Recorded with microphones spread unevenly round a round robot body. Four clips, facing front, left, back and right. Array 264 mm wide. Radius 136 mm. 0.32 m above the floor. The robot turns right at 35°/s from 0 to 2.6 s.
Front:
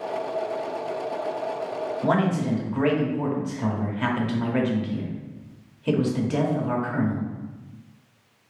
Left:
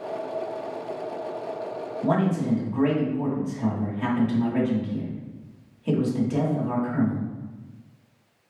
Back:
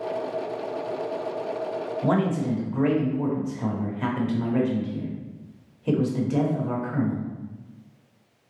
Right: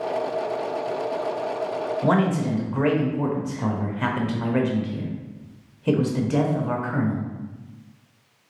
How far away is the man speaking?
About 1.0 m.